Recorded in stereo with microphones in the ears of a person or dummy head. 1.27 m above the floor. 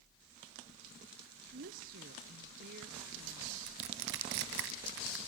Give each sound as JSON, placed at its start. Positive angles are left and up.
{"t": 1.5, "sound": "a woman speaking", "side_deg": -50, "distance_m": 0.7}
{"t": 3.7, "sound": "crushing", "side_deg": -60, "distance_m": 2.5}